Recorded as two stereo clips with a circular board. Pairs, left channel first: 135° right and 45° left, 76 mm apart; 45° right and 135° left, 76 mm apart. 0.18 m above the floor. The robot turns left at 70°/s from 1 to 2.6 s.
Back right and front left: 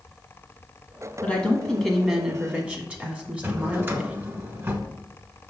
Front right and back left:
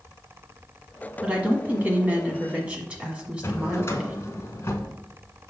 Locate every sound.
1.2 s a woman speaking: 175° right, 1.4 m; by 4.2 s 90° left, 1.4 m
3.4 s a drawer: 5° right, 1.1 m